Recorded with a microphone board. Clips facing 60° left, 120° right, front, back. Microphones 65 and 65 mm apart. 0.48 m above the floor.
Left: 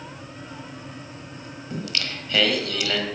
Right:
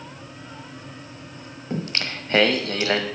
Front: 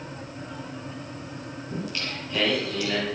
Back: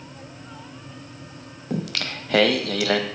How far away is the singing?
About 1.0 m.